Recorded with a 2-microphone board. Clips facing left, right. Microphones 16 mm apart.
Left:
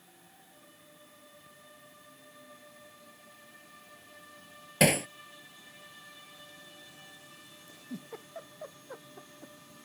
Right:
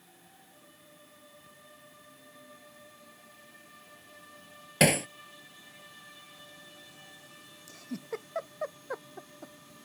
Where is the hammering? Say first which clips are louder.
Right 1 dB; 20° right (ahead or behind).